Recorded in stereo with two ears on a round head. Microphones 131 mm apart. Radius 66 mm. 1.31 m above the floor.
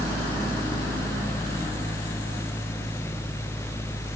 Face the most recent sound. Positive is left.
No sound to turn to.